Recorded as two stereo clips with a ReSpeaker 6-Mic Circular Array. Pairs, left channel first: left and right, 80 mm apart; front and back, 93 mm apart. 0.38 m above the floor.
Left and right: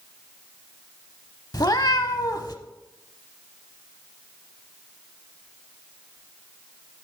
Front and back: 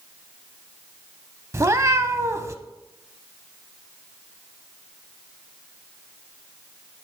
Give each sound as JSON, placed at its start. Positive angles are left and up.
{"t": 1.5, "sound": "a cat meowing", "azimuth_deg": 125, "distance_m": 0.7}